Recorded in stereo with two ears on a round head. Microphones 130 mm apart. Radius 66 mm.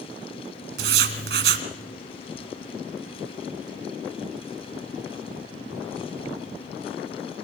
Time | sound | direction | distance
0.8 | writing | 85° right | 2 m